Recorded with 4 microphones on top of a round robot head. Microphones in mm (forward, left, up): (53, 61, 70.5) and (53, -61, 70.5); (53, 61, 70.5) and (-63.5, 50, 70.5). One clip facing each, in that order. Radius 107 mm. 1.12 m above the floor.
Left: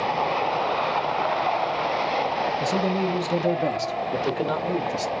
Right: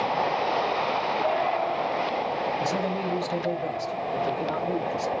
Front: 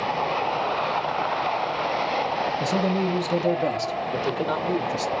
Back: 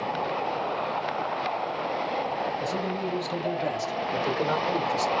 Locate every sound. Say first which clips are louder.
2.6 s a man speaking: left 3 dB, front 6 dB; 15° left, 0.9 m; by 5.1 s 95° left, 2 m